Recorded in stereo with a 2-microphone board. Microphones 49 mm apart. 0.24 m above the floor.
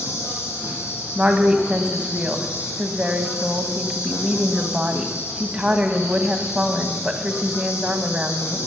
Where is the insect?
80° left, 3.5 m.